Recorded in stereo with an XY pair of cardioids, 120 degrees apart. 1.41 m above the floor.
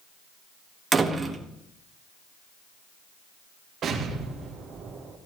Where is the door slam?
20° right, 1.4 m.